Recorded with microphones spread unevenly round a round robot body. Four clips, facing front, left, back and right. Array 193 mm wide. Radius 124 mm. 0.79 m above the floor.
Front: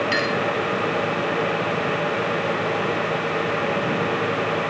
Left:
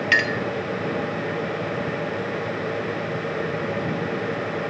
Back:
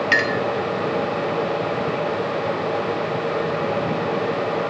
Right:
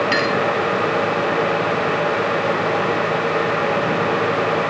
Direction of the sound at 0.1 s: 170° left.